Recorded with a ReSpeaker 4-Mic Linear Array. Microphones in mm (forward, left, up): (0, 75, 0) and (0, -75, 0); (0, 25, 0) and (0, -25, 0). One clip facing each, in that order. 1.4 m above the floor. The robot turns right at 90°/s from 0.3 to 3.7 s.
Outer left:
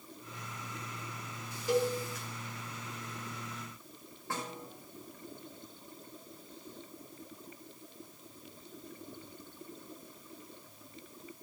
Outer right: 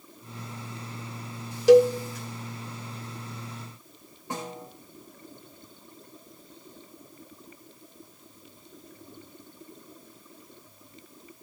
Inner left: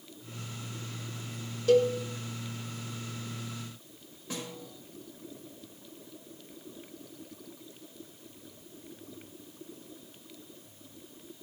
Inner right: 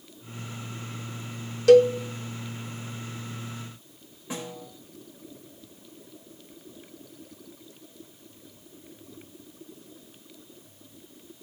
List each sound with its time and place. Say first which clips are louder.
1.7 s a cowbell: outer right 15 dB, inner right 8 dB; 85° right, 0.8 m; by 1.9 s 65° right (ahead or behind), 0.8 m
4.3 s a snare drum: outer right 4 dB, inner right 4 dB; 20° right (ahead or behind), 5 m